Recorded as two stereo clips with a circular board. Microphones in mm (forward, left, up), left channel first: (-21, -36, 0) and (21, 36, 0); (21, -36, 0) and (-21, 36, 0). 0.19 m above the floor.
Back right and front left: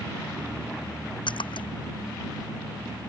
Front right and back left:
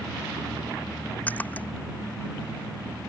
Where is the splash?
130° right.